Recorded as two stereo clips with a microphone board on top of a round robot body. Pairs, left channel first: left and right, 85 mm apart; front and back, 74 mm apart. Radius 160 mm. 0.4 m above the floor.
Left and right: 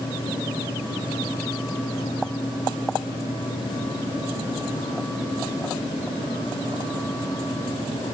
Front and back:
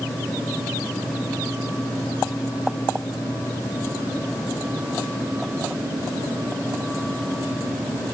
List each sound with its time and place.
Only background noise.